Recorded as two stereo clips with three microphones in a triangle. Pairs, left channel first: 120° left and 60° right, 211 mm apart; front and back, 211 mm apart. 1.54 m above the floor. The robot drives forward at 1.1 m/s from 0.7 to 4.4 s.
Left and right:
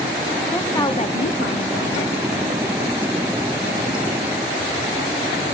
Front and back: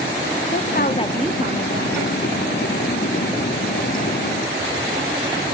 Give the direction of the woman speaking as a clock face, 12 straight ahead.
11 o'clock.